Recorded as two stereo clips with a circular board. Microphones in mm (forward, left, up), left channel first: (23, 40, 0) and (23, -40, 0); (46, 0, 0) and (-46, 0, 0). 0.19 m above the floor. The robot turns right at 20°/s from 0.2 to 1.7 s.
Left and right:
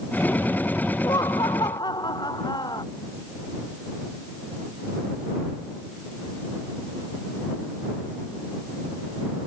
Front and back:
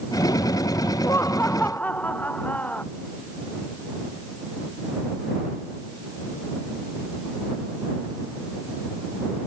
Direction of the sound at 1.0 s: 60° left.